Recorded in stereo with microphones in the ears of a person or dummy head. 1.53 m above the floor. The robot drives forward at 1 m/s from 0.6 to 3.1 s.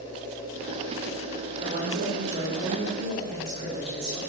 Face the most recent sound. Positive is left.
turn(degrees=-25)  # may be behind; listen again after turning